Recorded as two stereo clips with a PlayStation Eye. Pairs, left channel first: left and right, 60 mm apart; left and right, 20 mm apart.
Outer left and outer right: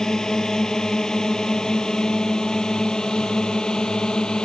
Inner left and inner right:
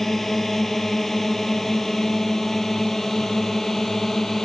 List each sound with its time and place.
0.0 s a drone: 10° left (ahead or behind); by 4.5 s 15° left (ahead or behind)